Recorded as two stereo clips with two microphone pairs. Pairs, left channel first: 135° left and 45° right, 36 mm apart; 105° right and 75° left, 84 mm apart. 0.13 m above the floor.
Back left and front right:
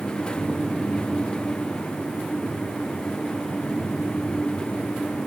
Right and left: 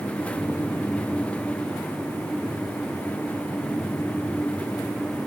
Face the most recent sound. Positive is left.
No sound to turn to.